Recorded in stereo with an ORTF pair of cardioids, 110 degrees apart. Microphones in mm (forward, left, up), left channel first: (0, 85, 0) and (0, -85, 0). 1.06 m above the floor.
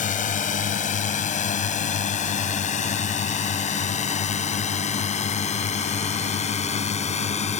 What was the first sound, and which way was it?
A drone, 50° left.